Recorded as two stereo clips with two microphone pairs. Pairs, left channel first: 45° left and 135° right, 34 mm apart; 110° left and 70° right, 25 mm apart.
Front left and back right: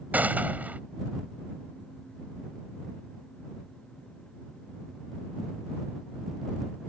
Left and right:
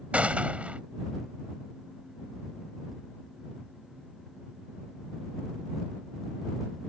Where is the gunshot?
95° right.